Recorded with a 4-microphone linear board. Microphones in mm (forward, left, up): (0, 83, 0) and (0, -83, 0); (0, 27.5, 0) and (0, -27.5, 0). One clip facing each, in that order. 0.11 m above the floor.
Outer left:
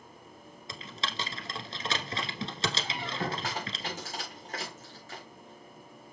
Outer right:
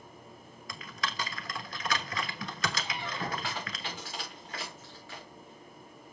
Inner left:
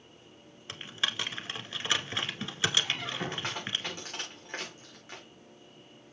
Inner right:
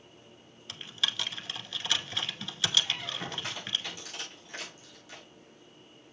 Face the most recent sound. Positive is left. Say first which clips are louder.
# outer left 2 dB, inner left 2 dB
turn(degrees=45)  # may be behind; listen again after turning